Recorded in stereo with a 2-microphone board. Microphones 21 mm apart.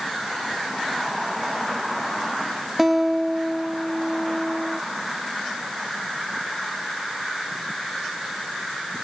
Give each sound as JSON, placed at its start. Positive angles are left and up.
{"t": 2.8, "sound": "a guitar", "side_deg": -10, "distance_m": 1.1}